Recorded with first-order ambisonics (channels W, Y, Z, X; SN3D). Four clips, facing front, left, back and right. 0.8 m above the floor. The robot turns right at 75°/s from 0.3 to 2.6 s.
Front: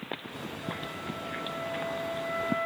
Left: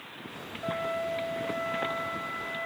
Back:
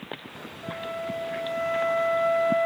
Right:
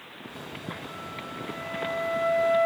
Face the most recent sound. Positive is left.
turn(degrees=-120)